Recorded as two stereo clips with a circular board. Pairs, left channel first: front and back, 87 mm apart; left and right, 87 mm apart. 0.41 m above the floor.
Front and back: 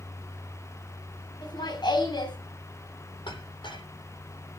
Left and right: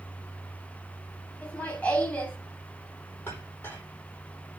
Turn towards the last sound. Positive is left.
turn(degrees=25)